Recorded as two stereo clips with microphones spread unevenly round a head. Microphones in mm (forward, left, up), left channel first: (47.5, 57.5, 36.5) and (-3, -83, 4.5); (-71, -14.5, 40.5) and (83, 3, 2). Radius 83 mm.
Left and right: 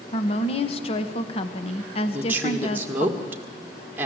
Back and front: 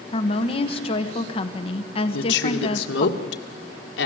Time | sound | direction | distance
0.1 | a woman speaking | 125° left | 1.3 m
2.1 | a woman speaking | 175° left | 1.9 m